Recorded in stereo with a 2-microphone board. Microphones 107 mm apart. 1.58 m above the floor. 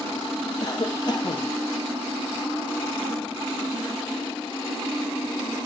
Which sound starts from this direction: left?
A cough, at 0.6 s.